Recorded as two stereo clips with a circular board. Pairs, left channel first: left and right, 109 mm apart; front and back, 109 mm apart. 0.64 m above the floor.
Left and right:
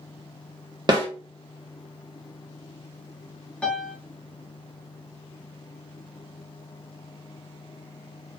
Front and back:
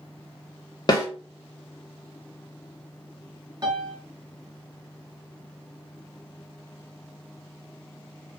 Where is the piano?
165° left, 0.7 m.